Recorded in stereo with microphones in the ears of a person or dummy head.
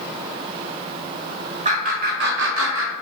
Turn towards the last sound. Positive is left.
turn(degrees=-60)  # may be behind; listen again after turning